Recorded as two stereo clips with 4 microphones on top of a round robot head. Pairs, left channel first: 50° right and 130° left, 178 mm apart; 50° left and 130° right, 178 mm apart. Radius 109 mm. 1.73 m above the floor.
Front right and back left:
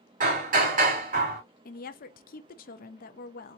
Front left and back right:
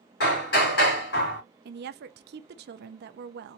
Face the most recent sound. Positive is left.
turn(degrees=-95)